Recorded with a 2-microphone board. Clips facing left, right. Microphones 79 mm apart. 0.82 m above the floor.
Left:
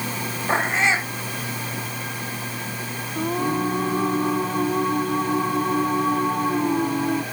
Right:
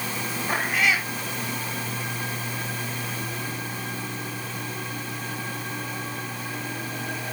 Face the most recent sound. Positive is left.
turn(degrees=60)  # may be behind; listen again after turning